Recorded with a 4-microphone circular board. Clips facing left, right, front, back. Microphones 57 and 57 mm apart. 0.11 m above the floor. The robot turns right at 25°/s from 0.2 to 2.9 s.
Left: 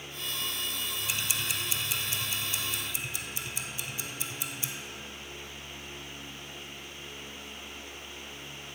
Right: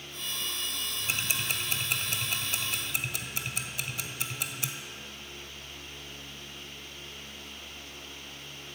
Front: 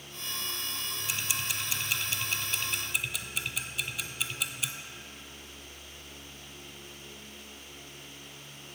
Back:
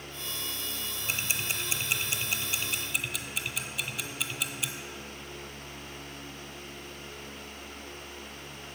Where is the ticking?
140° right, 0.5 m; by 4.7 s 95° right, 0.5 m.